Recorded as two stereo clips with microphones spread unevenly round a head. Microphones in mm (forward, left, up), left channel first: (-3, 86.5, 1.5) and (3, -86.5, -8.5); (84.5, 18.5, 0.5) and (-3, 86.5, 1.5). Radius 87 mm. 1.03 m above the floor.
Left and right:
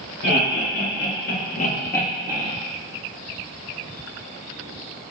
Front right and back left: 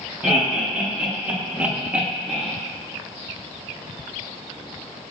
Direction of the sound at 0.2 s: 60° left.